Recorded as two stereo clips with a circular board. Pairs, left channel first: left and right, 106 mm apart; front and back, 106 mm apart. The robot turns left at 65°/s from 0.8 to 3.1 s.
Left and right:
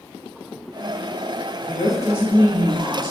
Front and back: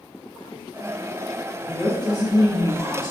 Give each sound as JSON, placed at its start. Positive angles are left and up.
{"t": 1.6, "sound": "a woman speaking", "azimuth_deg": 20, "distance_m": 1.3}